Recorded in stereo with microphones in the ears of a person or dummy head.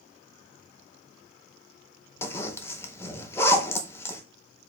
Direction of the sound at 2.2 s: 15° left (ahead or behind).